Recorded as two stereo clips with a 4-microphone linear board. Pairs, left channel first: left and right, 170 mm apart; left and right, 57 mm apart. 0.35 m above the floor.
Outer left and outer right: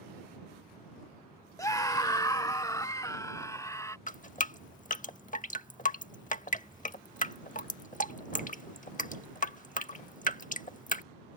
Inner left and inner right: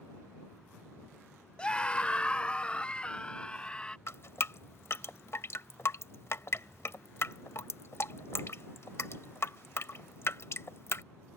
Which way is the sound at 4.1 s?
50° left (ahead or behind).